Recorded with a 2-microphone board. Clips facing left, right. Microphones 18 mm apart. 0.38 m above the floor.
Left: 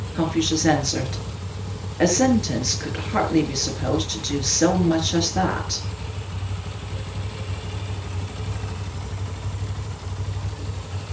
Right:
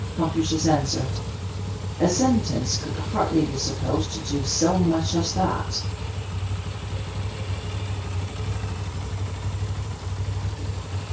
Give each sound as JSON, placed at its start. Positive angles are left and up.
{"t": 0.1, "sound": "a woman speaking", "side_deg": 75, "distance_m": 7.0}